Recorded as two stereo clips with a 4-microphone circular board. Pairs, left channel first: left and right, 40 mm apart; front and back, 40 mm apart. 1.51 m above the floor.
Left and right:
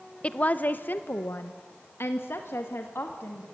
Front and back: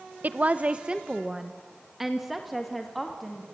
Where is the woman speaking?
145° left, 0.7 m; by 3.5 s 90° left, 2 m.